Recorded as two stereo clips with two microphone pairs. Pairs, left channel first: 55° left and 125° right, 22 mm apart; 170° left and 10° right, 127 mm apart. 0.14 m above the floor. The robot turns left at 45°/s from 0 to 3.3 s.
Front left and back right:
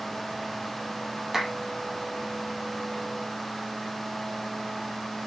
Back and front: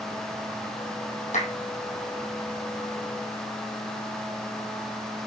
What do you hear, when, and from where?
1.3 s a clap: 160° left, 4.5 m; by 1.5 s 155° left, 4.5 m